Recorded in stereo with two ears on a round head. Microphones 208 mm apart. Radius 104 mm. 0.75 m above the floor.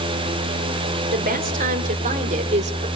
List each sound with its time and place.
1.1 s a woman speaking: 40° right (ahead or behind), 3 m; by 2.9 s 30° right (ahead or behind), 2.5 m